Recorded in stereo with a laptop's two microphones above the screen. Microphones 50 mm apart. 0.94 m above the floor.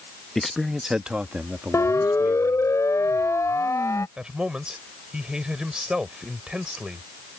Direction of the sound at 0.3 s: 5° left (ahead or behind).